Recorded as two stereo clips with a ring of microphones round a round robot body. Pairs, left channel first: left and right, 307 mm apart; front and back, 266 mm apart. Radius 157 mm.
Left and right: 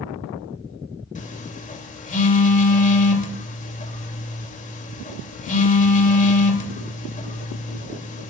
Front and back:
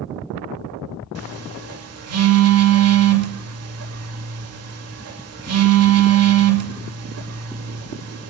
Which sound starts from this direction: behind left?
A phone buzzing, at 1.1 s.